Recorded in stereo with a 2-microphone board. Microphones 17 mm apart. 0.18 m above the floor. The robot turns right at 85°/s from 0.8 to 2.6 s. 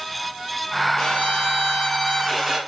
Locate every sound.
1.0 s a violin: 55° left, 2.0 m; by 2.6 s 165° right, 2.0 m